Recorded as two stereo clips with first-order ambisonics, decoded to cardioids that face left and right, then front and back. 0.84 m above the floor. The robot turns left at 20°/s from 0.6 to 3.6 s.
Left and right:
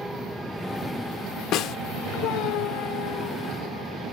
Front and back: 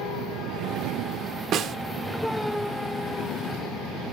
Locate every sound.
1.5 s a snare drum: 135° left, 0.5 m; by 1.8 s 130° left, 0.5 m